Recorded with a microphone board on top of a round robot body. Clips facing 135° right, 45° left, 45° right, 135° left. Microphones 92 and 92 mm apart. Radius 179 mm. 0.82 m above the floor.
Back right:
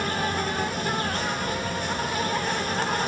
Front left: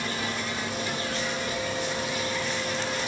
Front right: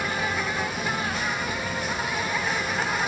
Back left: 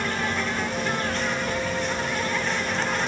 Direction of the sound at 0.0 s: 125° right.